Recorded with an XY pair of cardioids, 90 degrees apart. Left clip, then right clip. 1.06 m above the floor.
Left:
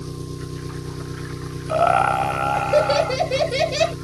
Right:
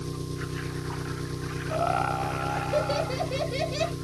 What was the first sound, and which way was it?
An engine running, 20° left.